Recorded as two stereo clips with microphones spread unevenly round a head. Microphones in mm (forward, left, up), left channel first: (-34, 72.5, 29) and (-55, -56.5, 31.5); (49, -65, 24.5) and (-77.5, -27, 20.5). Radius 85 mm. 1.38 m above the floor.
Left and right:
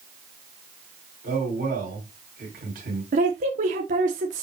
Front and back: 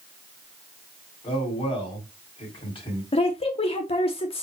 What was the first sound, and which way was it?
A man speaking, 65° right.